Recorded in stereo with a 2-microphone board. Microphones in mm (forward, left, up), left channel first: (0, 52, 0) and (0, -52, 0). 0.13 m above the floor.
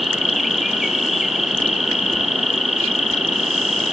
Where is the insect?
Centre (ahead or behind), 2.5 m.